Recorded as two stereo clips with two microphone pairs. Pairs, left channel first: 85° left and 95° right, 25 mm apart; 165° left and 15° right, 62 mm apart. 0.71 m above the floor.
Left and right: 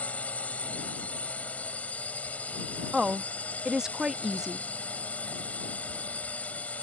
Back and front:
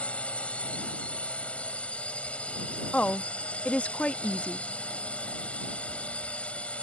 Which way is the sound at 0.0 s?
100° left.